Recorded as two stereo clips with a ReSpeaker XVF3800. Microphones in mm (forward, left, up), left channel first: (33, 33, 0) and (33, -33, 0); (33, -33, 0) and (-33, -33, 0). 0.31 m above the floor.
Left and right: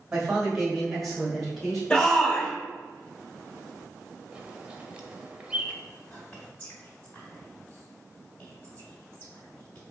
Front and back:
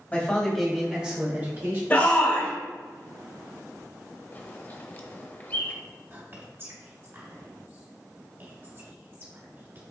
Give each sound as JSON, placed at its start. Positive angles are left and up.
{"t": 0.1, "sound": "a man speaking", "azimuth_deg": -15, "distance_m": 1.6}
{"t": 1.9, "sound": "a shout", "azimuth_deg": 35, "distance_m": 1.4}
{"t": 4.3, "sound": "a bird", "azimuth_deg": -25, "distance_m": 0.7}
{"t": 6.1, "sound": "whispering", "azimuth_deg": 150, "distance_m": 2.0}